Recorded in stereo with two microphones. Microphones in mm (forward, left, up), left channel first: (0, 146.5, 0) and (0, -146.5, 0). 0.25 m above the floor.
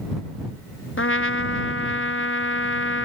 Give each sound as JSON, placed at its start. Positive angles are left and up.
{"t": 1.0, "sound": "a trumpet", "side_deg": 45}